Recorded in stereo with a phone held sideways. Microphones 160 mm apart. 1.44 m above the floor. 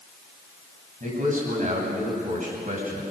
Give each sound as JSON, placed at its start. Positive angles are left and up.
{"t": 1.0, "sound": "a man speaking", "side_deg": -55, "distance_m": 8.5}